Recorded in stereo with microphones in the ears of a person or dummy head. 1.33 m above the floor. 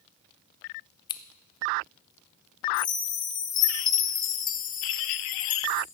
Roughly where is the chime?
Left.